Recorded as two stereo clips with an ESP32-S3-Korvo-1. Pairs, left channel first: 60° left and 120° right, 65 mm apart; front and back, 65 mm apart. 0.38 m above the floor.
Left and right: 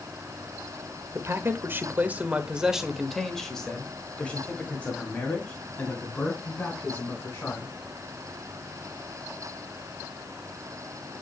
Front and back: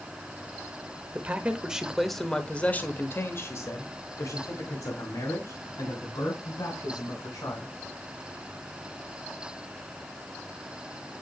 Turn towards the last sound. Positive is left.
turn(degrees=5)